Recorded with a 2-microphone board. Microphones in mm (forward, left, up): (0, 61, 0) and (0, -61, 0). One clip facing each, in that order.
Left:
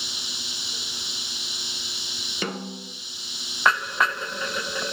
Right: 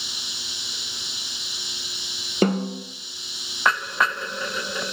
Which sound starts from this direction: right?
A snare drum, at 2.4 s.